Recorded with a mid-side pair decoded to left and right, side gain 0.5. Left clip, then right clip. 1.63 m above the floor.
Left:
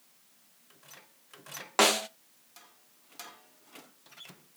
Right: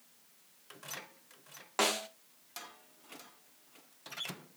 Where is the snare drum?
40° left, 0.5 m.